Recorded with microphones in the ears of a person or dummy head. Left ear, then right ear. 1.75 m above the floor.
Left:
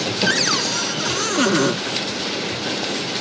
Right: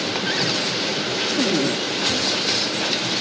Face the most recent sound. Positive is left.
turn(degrees=50)  # may be behind; listen again after turning